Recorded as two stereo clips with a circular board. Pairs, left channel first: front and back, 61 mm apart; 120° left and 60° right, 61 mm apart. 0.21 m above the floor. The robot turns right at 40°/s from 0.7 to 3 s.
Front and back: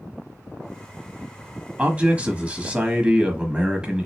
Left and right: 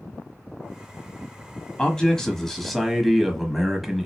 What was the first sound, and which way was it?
A man speaking, 165° left.